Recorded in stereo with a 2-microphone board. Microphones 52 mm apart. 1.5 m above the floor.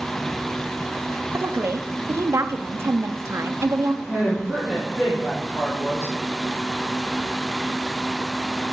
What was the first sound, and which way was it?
A woman speaking, 60° right (ahead or behind).